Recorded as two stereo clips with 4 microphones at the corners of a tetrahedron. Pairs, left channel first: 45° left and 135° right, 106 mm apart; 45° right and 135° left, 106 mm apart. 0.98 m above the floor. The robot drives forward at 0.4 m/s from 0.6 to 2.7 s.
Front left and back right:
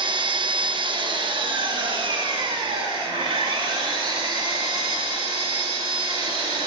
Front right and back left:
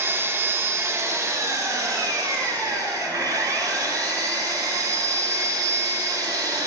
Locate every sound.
0.0 s an engine running: 160° right, 0.9 m; by 6.7 s 170° right, 1.6 m